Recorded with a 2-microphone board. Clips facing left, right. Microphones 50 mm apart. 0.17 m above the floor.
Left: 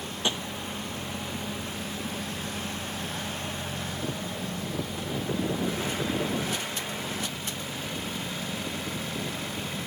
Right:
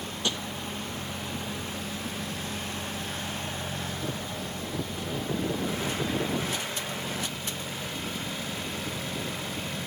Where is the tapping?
20° left (ahead or behind).